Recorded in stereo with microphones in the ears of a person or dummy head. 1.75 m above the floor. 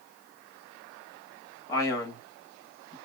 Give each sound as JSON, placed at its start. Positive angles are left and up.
{"t": 1.7, "sound": "a man speaking", "side_deg": 20, "distance_m": 0.9}